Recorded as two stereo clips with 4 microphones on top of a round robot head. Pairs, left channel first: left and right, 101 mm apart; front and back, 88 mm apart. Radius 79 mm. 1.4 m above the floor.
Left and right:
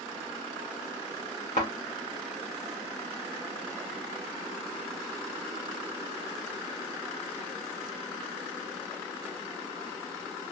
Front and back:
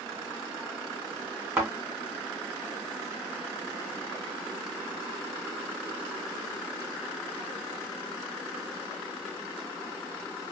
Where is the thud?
135° left, 1.3 m.